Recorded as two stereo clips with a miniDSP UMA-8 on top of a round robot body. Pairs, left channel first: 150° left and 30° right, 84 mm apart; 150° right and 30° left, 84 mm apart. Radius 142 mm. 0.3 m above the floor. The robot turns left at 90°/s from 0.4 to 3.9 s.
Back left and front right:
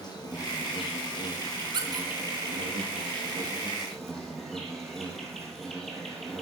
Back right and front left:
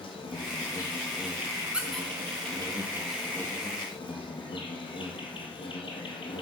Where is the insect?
165° right, 3 m; by 6.4 s 120° right, 3 m.